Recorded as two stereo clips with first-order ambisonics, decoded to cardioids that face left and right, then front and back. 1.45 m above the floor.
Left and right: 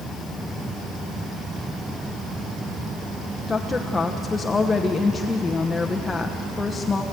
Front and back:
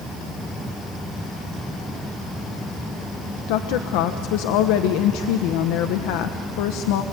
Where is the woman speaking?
10° left, 1.0 m.